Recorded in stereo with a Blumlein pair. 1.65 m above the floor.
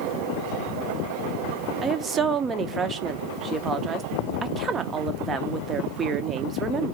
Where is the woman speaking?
20° right, 0.6 m.